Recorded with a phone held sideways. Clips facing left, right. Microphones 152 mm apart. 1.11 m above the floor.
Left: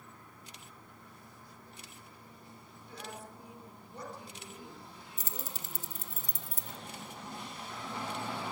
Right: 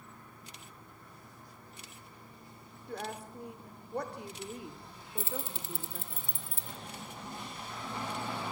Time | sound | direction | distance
2.9 | a woman speaking | 55° right (ahead or behind) | 3.5 m
5.2 | keys jangling | 40° left (ahead or behind) | 0.6 m